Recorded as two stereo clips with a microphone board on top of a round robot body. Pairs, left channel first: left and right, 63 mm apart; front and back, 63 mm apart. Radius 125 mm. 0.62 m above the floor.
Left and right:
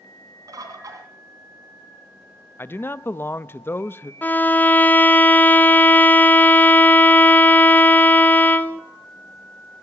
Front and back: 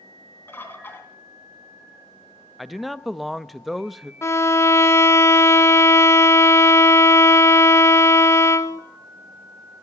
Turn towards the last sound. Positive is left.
turn(degrees=35)